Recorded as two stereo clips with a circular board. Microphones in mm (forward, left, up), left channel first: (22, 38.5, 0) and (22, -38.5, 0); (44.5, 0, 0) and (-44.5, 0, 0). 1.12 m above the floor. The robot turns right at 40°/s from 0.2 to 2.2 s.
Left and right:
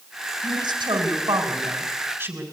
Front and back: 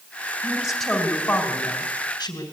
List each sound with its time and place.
0.4 s a woman speaking: 100° right, 4 m; by 2.4 s 25° right, 4 m